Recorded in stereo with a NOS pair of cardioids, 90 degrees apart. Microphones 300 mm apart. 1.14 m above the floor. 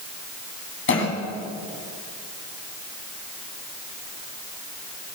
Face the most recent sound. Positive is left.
turn(degrees=40)